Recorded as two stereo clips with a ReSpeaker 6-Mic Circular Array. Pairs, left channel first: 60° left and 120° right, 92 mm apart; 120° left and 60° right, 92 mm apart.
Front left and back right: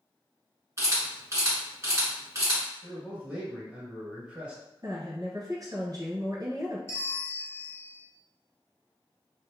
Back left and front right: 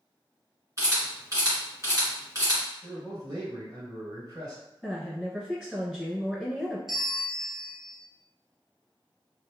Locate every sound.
0.8 s a camera shutter: 85° right, 1.9 m
2.8 s a man speaking: 50° right, 1.8 m
4.8 s a woman speaking: 135° right, 1.4 m
6.9 s a bell: 25° left, 0.9 m